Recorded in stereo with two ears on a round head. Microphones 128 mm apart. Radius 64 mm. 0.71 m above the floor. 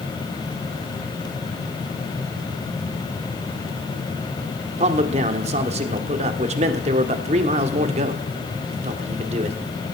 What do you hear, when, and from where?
4.8 s a man speaking: 45° right (ahead or behind), 1.7 m